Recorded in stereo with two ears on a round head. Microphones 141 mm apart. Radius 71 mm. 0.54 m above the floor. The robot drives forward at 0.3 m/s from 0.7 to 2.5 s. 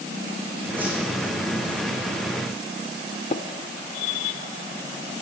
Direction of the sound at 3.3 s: 45° left (ahead or behind).